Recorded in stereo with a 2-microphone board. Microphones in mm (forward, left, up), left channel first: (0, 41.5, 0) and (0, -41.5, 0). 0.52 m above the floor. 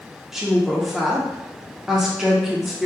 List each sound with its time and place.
0.3 s a woman speaking: 5° right (ahead or behind), 0.7 m